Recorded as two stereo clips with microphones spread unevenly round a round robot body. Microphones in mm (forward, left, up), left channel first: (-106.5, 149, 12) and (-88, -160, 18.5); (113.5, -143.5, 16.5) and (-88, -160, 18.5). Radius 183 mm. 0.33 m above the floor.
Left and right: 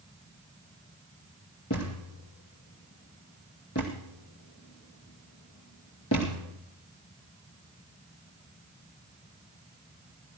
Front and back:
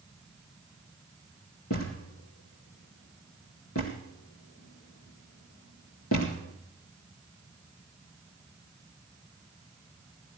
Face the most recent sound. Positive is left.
turn(degrees=40)